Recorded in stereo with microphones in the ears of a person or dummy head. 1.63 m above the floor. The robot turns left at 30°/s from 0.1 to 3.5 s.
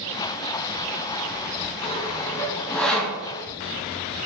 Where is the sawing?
25° left (ahead or behind), 0.6 m; by 3.2 s 5° right (ahead or behind), 0.6 m.